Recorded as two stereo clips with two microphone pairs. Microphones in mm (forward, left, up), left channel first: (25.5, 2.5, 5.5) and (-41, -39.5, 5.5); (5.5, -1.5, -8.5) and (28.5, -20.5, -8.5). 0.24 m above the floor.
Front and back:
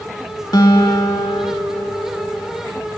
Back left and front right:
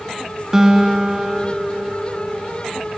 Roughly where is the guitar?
Ahead left.